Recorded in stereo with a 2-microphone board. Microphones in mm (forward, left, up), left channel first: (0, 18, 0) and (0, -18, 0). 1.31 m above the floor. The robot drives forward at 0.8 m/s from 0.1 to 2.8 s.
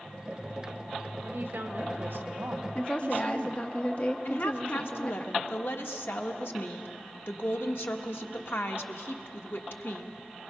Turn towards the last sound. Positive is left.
turn(degrees=80)